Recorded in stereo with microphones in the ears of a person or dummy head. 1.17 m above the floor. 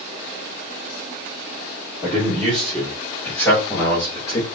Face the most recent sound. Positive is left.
turn(degrees=25)  # may be behind; listen again after turning